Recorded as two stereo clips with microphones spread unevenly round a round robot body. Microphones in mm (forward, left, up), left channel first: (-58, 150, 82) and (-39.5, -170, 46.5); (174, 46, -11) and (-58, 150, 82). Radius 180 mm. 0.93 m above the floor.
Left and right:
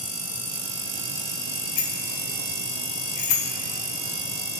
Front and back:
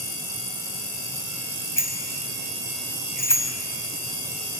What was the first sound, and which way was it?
A bicycle bell, 55° left.